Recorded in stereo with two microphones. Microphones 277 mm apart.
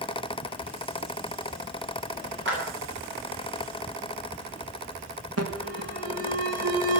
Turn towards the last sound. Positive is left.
turn(degrees=-60)  # may be behind; listen again after turning